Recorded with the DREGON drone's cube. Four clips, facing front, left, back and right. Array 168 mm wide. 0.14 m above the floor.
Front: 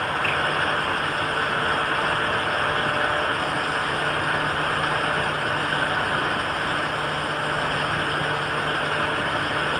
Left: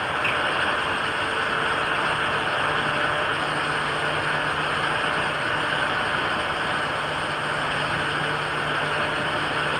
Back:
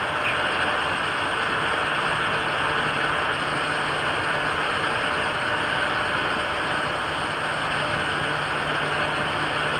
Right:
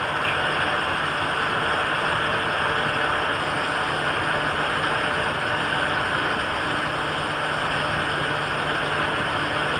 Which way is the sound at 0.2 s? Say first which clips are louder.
Even, front 1 dB; 40° right.